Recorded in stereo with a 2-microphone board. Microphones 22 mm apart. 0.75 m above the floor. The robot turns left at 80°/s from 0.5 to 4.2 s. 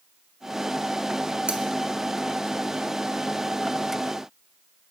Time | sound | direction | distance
1.5 | cutlery clinking | 55° right (ahead or behind) | 1.5 m